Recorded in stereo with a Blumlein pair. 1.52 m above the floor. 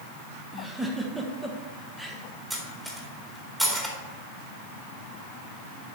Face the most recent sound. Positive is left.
turn(degrees=-10)